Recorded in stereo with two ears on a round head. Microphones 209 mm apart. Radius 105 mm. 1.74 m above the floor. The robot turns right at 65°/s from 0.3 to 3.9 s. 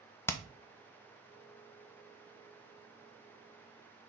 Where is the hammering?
10° left (ahead or behind), 0.7 m; by 0.4 s 15° left (ahead or behind), 0.7 m.